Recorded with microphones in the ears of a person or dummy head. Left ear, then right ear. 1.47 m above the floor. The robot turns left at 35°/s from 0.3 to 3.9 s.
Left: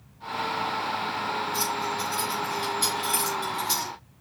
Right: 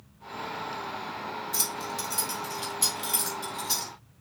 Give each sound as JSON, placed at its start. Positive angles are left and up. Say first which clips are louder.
{"t": 1.5, "sound": "keys jangling", "louder": "left 5 dB", "side_deg": -40, "distance_m": 3.0}